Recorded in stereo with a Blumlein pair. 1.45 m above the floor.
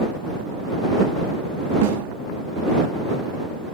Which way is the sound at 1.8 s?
50° right.